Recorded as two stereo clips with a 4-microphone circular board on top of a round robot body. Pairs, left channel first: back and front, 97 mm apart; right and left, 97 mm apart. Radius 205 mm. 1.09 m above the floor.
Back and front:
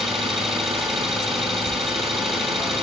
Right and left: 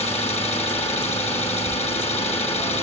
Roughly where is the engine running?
Right.